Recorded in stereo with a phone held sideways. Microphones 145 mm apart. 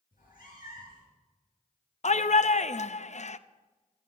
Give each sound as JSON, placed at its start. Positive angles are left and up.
{"t": 0.1, "sound": "a cat meowing", "side_deg": 75, "distance_m": 6.5}
{"t": 2.0, "sound": "a shout", "side_deg": 55, "distance_m": 0.5}